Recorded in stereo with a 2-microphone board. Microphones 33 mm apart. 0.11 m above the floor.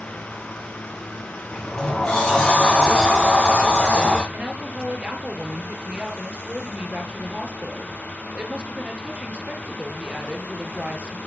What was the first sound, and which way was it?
A sliding door, 15° left (ahead or behind).